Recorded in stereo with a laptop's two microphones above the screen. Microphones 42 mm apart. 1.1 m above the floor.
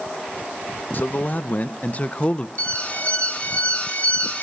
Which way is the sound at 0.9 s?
45° left (ahead or behind).